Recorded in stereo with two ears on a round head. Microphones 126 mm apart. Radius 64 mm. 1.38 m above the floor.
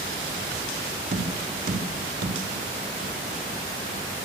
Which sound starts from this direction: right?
Tapping, at 1.1 s.